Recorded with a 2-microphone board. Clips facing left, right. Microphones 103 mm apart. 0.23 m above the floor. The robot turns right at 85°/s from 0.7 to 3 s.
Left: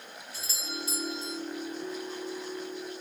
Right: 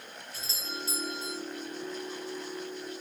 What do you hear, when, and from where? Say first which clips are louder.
0.3 s a doorbell: left 1 dB; 30° right (ahead or behind), 1.9 m; by 1.4 s 15° right (ahead or behind), 1.9 m